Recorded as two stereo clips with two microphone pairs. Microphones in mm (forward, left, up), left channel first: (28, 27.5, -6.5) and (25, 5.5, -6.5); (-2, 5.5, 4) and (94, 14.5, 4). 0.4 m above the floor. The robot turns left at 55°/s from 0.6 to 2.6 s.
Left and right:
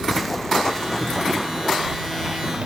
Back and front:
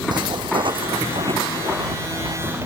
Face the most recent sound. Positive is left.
turn(degrees=-55)